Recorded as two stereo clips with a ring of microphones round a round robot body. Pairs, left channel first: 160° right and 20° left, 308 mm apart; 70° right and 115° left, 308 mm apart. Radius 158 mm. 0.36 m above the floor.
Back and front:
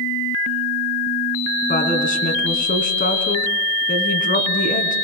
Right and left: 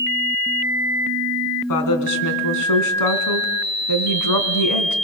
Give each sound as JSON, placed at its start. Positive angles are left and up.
{"t": 1.7, "sound": "a woman speaking", "azimuth_deg": -95, "distance_m": 3.0}